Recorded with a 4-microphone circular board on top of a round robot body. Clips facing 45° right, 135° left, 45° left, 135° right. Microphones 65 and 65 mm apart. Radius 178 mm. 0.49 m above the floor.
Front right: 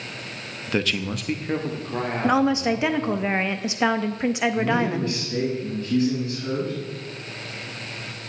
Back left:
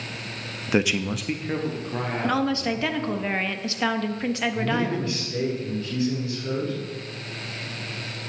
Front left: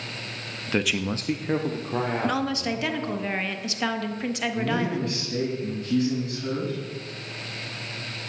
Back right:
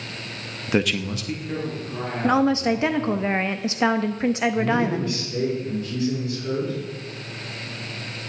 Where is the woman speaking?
100° right, 1.0 m.